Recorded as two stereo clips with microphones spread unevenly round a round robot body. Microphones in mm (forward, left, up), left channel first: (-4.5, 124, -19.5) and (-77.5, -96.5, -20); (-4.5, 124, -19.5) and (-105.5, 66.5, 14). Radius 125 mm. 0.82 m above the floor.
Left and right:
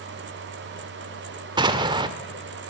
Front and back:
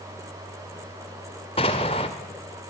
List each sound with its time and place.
1.6 s an explosion: 35° right, 1.7 m